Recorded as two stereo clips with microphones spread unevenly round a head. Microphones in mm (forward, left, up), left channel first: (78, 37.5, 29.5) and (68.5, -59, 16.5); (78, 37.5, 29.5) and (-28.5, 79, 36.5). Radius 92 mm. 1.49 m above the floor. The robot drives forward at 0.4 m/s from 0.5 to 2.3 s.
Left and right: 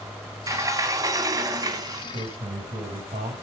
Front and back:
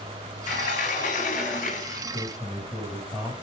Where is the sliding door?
40° right, 4.5 m; by 2.0 s 50° right, 4 m.